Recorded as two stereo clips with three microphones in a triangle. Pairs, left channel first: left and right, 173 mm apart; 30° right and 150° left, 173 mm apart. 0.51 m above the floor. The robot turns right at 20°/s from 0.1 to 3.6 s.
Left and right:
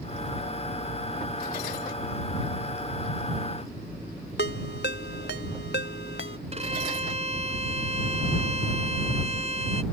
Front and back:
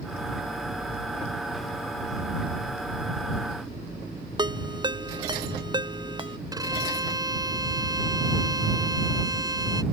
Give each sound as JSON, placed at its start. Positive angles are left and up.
{"t": 4.4, "sound": "a ringtone", "azimuth_deg": 85}
{"t": 6.5, "sound": "a violin", "azimuth_deg": -140}